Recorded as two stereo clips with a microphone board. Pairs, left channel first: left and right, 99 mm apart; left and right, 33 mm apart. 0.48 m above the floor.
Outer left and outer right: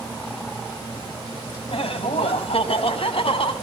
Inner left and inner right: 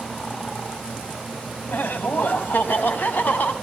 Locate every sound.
1.7 s laughter: 75° left (ahead or behind), 3 m; by 3.5 s 60° left (ahead or behind), 4 m